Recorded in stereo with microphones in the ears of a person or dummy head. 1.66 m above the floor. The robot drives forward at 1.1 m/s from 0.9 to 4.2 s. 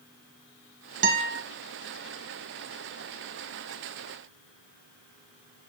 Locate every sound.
1.0 s a guitar: 50° right (ahead or behind), 1.9 m; by 1.4 s 60° right (ahead or behind), 1.6 m